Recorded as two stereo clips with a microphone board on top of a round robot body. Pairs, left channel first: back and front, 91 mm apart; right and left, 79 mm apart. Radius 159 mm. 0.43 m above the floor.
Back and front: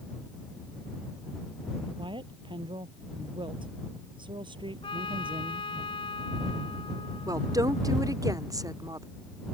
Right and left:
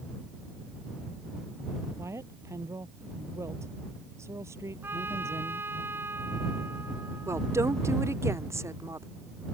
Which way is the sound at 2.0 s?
35° left.